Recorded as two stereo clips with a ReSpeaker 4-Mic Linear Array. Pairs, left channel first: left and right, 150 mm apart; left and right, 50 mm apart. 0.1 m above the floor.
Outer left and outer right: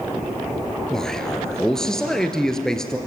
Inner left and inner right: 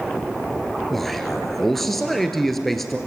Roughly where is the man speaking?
Centre.